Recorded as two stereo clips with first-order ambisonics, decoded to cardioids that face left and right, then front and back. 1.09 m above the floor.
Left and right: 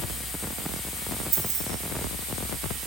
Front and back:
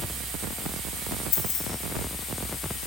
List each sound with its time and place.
1.3 s keys jangling: 30° right, 2 m